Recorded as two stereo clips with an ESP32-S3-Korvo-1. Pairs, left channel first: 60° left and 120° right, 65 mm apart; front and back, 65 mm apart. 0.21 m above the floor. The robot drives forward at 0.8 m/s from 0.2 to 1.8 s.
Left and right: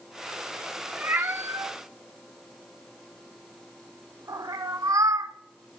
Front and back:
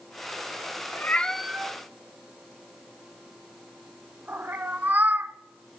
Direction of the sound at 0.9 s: 50° right.